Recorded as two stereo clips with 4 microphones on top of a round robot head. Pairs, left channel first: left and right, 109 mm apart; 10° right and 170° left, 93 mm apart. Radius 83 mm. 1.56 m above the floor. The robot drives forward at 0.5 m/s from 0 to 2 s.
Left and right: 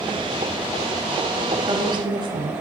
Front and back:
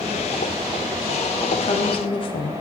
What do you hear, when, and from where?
1.6 s a woman speaking: 30° right, 0.9 m; by 2.5 s 40° right, 0.7 m